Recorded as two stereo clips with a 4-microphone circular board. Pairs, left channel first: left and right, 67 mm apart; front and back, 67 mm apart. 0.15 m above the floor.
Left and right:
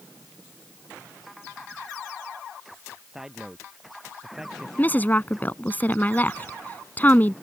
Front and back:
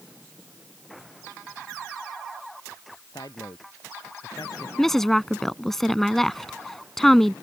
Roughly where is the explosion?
I don't hear an explosion.